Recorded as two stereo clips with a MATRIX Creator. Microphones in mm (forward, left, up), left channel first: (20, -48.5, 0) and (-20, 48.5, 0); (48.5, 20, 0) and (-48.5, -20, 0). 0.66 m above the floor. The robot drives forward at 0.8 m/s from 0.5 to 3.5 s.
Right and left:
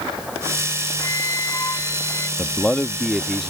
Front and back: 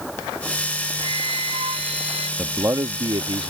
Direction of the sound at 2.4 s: 105° right.